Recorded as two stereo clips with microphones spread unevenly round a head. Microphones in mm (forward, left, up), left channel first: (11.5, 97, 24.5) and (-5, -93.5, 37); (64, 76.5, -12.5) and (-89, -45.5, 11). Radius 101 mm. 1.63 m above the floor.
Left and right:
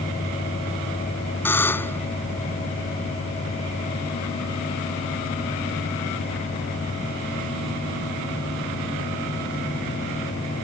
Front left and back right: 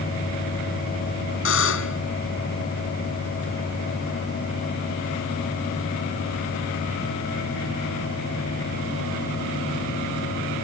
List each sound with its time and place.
1.4 s a buzzer: 5° left